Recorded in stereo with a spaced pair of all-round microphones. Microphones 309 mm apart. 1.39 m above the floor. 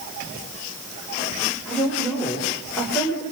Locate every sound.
1.6 s a woman speaking: centre (ahead or behind), 7 m; by 3.2 s 10° left (ahead or behind), 6 m